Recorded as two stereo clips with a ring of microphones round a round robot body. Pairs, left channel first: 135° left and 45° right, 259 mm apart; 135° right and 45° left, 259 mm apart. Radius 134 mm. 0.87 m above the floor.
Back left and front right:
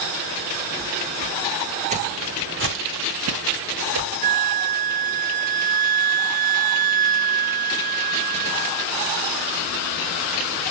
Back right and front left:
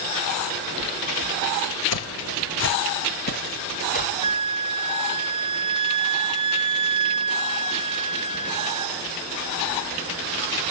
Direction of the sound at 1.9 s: 110° right.